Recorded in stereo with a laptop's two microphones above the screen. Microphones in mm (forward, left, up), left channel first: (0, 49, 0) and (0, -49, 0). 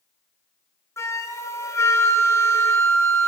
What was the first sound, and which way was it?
A flute, 30° left (ahead or behind).